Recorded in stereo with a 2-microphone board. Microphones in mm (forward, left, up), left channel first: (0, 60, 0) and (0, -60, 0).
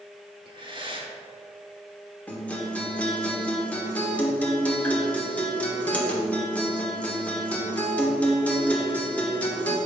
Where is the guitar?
10° left (ahead or behind), 1.5 m.